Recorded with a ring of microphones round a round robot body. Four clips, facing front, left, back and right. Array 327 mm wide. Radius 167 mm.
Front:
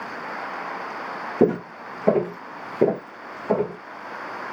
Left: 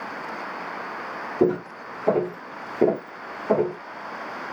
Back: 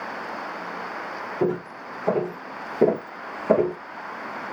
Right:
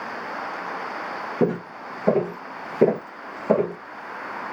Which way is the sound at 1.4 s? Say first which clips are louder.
Left 2 dB, front 5 dB; 5° right.